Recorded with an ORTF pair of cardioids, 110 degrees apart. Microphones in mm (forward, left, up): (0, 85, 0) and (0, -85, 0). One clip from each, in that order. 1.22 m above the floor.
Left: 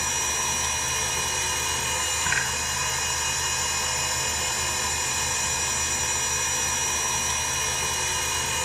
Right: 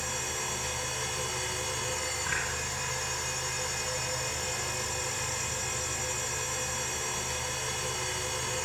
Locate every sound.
0.0 s a machine running: 50° left, 1.3 m